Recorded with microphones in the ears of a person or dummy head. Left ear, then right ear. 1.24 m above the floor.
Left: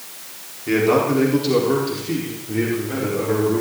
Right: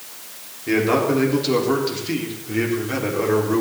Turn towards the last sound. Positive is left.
turn(degrees=-55)  # may be behind; listen again after turning